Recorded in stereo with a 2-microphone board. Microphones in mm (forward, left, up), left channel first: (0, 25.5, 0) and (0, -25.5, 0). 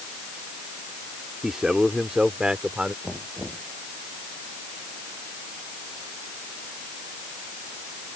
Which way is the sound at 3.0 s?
Centre (ahead or behind).